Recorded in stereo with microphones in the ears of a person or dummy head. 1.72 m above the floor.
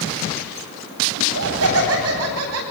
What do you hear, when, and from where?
1.2 s laughter: 85° right, 9 m